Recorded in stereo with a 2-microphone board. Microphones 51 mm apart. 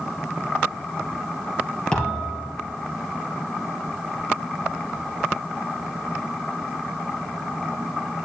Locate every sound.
1.9 s a thud: 15° left (ahead or behind), 3.5 m